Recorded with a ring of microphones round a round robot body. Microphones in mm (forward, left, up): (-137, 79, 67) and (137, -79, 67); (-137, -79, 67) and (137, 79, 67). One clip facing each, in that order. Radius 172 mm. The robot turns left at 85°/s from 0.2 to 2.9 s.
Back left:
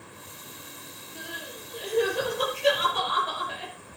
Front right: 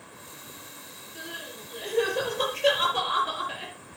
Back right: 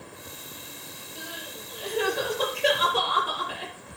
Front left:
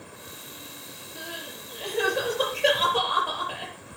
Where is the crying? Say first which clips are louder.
Even, front left 1 dB; 65° left, 7 m; by 3.7 s 85° right, 7 m.